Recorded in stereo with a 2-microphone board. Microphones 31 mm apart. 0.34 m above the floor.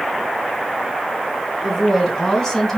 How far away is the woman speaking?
About 3.5 m.